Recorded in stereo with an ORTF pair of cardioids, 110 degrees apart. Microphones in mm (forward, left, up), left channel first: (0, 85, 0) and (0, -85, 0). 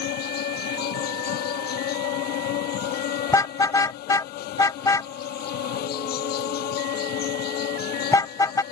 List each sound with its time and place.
0.0 s an insect: 70° left
3.3 s a car horn: 20° left